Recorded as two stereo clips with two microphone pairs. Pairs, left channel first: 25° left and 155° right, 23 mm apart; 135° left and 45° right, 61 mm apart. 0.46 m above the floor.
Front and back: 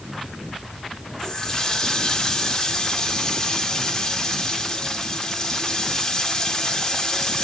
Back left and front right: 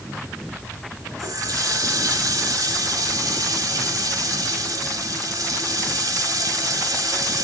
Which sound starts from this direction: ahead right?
A running tap, at 1.2 s.